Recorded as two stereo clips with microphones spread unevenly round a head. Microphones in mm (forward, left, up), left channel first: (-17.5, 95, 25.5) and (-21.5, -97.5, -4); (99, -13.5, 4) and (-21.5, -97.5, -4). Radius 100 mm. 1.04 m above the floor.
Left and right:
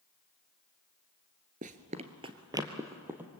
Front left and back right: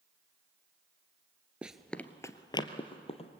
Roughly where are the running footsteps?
Ahead right.